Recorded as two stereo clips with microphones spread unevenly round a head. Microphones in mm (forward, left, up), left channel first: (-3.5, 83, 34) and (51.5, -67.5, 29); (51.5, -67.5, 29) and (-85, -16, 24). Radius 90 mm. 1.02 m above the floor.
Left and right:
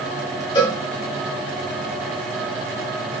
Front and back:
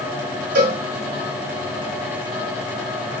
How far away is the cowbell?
About 1.5 m.